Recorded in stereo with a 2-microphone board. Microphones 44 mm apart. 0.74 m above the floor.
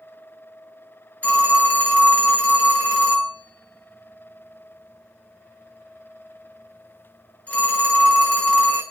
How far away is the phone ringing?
About 1.6 m.